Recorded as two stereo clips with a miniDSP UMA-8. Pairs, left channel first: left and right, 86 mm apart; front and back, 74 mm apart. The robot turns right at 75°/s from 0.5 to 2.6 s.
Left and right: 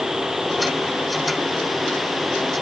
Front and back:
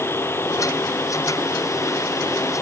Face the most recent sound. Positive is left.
No sound to turn to.